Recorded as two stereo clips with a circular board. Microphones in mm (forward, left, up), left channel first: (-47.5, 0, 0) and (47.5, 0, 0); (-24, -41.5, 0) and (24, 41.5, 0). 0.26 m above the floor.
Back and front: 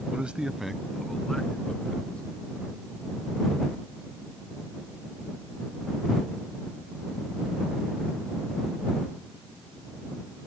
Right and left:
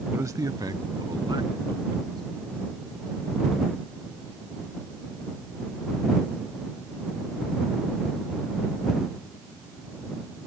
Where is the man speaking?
55° left; by 2.2 s 100° left.